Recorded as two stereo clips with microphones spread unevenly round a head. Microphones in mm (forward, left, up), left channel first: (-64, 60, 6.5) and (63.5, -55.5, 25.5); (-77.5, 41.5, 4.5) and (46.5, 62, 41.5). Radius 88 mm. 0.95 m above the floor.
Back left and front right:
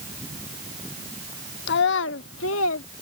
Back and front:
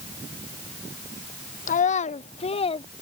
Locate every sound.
1.7 s a child speaking: 170° left; by 2.9 s 145° left